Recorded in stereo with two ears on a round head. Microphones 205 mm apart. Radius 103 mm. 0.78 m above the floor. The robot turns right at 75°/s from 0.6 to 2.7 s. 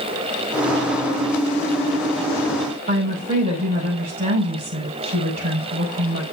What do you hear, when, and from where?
2.9 s a woman speaking: 35° right (ahead or behind), 4.5 m